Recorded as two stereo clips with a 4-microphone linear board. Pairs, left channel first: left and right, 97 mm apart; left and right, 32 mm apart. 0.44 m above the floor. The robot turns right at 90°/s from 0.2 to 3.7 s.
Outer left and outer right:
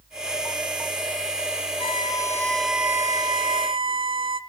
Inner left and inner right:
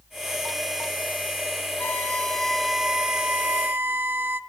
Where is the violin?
100° left, 0.8 m; by 4.4 s 85° right, 0.8 m.